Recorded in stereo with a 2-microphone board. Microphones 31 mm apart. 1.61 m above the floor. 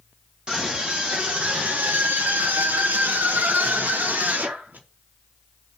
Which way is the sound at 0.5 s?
30° right (ahead or behind).